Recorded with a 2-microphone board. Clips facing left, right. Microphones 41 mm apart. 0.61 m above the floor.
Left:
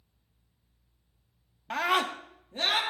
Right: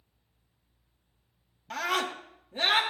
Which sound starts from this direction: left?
A scream, at 1.7 s.